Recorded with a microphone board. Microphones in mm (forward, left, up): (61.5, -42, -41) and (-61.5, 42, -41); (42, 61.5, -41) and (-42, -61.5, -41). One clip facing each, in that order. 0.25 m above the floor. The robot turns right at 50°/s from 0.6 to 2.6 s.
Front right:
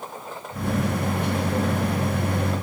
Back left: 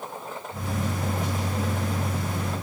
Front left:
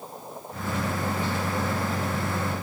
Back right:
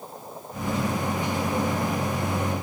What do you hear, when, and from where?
Only background noise.